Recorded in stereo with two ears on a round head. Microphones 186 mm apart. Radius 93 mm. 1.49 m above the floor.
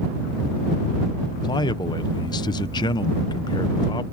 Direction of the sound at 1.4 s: 20° left (ahead or behind).